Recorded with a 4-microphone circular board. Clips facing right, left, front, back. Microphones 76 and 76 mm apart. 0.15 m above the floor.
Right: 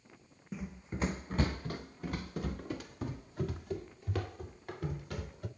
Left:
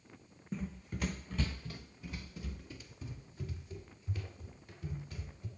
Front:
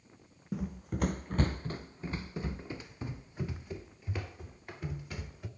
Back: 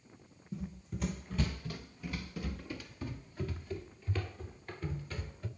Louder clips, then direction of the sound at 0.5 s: Even, front 6 dB; 5° right.